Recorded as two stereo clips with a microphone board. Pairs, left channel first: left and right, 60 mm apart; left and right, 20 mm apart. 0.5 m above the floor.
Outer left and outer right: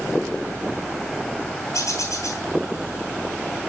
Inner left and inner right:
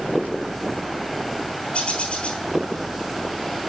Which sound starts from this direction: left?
A bird, at 1.7 s.